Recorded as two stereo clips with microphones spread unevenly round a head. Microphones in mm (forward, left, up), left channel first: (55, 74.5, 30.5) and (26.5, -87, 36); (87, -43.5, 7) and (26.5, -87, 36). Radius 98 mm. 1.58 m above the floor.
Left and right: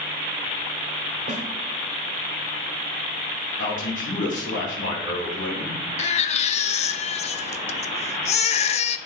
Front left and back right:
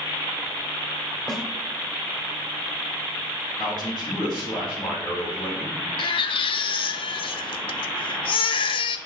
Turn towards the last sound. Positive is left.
turn(degrees=40)